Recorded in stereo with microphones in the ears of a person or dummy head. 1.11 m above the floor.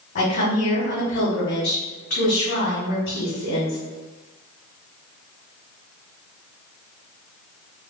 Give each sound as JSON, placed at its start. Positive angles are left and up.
{"t": 0.1, "sound": "a woman speaking", "side_deg": 55, "distance_m": 1.6}